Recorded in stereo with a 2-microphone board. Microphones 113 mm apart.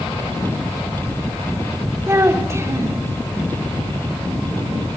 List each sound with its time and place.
2.1 s a child speaking: 25° right (ahead or behind), 3 m